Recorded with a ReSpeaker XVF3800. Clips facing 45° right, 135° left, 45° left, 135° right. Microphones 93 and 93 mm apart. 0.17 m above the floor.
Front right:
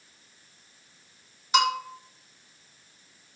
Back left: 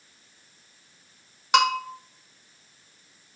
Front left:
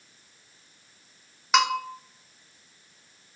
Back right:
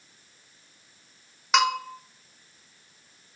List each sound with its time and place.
1.5 s a bell: 135° left, 0.6 m